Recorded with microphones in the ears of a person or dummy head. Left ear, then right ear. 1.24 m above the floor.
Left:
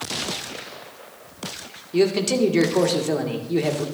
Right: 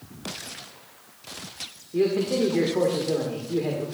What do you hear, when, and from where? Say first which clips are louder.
1.9 s a man speaking: left 3 dB; 70° left (ahead or behind), 1.6 m